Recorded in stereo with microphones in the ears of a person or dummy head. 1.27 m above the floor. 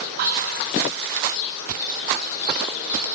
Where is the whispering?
45° right (ahead or behind), 0.6 m.